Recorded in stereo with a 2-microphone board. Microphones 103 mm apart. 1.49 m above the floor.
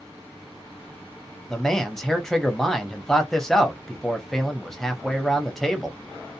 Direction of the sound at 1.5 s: 5° left (ahead or behind).